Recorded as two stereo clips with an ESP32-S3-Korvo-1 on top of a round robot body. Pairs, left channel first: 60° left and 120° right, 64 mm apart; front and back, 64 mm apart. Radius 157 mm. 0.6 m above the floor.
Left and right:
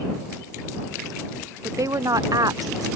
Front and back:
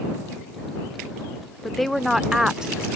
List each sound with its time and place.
1.6 s a woman speaking: 85° right; by 2.9 s 105° right